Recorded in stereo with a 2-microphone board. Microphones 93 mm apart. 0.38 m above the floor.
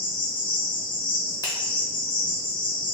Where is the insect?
55° left (ahead or behind), 1.4 m.